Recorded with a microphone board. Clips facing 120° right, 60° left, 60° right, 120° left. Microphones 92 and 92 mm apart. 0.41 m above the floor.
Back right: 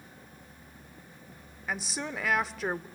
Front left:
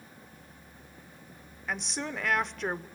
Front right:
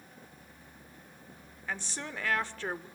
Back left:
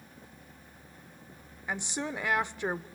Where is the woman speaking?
160° left, 0.8 m.